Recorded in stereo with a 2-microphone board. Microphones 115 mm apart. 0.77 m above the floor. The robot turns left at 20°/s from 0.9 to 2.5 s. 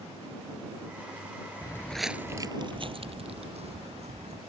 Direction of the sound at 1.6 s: 30° left (ahead or behind).